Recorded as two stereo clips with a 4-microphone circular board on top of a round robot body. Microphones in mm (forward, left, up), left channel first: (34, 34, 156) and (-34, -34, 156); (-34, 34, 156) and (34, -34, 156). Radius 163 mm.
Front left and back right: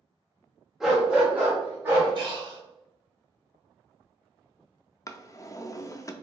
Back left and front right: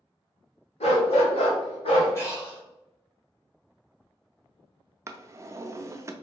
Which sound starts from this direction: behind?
Breathing, at 2.1 s.